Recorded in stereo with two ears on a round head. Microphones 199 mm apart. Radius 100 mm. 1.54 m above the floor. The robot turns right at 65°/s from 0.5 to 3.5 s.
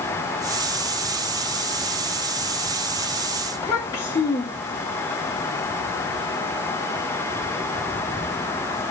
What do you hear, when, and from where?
3.5 s a child speaking: 15° left (ahead or behind), 1.4 m